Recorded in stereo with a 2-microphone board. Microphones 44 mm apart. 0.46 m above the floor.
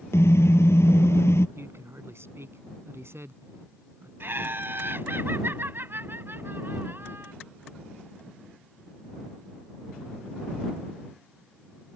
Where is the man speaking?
70° right (ahead or behind).